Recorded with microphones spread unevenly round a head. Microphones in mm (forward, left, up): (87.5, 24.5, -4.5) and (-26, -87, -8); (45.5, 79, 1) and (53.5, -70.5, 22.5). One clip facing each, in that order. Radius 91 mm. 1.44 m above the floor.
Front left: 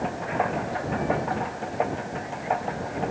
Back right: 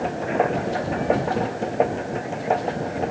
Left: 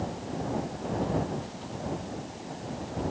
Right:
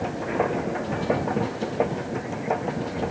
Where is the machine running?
90° right.